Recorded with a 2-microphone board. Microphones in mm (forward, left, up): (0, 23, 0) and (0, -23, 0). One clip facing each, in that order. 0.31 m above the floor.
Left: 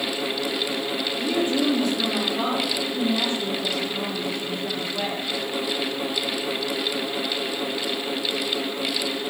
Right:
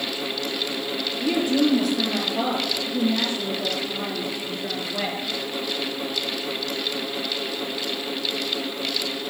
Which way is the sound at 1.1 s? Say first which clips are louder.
Right 2 dB; 60° right (ahead or behind).